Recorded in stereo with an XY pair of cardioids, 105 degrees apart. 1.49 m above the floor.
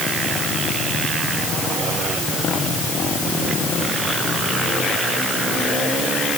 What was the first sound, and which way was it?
Only background noise.